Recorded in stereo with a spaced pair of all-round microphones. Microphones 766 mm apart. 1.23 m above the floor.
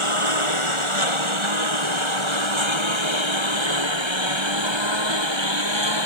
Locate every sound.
0.0 s a lawn mower: 40° right (ahead or behind); by 6.1 s 35° right (ahead or behind)